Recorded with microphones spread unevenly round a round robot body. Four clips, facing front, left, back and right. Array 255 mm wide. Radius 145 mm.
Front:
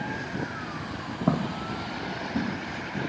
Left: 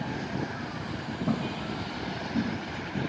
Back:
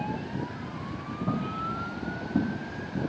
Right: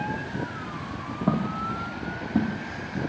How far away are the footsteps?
About 0.5 m.